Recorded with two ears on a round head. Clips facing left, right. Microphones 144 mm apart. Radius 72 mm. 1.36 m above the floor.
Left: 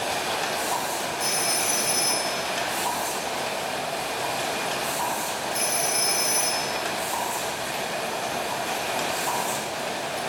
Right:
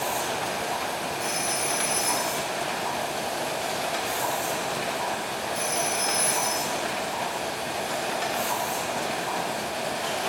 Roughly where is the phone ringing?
Left.